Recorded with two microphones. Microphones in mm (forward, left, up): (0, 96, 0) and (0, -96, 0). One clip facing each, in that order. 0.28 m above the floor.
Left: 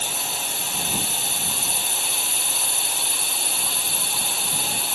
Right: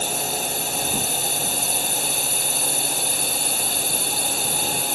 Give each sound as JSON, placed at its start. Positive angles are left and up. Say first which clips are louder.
{"t": 0.0, "sound": "a drone", "louder": "right 6 dB", "side_deg": -45}